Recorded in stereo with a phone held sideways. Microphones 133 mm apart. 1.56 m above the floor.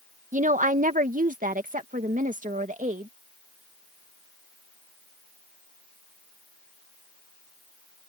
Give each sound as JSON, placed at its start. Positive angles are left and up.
{"t": 0.3, "sound": "a woman speaking", "side_deg": -70}